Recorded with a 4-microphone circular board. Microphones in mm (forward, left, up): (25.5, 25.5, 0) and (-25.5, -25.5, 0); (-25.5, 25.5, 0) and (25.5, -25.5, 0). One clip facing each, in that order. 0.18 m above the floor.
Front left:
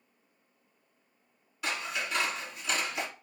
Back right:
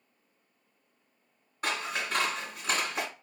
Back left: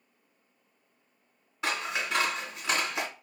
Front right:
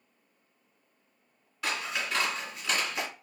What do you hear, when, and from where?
1.6 s scissors: 170° right, 1.8 m